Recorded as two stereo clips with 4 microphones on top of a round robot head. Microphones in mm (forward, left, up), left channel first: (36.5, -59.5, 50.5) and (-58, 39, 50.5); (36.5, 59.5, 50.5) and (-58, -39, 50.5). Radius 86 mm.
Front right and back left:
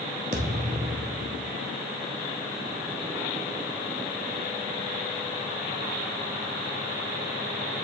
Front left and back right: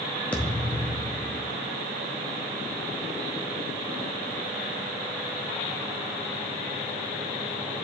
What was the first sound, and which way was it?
A thud, 120° left.